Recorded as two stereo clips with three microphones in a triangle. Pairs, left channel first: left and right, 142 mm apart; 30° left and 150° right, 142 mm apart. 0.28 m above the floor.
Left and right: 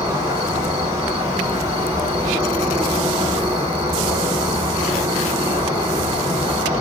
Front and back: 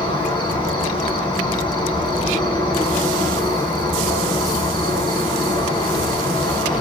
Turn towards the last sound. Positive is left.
turn(degrees=-25)